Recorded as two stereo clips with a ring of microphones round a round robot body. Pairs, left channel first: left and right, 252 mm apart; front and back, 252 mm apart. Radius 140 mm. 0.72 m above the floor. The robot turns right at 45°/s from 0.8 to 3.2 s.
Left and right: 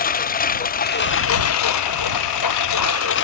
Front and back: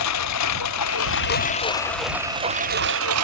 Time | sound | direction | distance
0.0 | a lawn mower | 35° left | ?